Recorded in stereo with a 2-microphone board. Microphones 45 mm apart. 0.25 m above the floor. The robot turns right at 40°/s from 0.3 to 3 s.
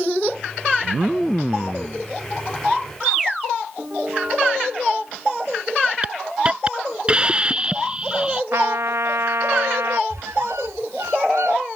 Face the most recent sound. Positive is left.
turn(degrees=-85)